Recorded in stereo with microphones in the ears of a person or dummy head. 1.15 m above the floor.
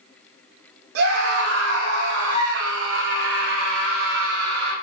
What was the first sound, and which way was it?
A scream, 75° right (ahead or behind).